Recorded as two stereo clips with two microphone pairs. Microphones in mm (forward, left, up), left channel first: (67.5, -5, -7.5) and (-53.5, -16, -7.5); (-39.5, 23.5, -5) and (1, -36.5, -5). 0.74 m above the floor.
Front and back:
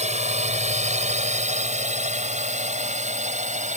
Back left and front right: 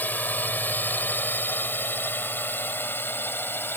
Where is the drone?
170° right; by 3.8 s 175° right.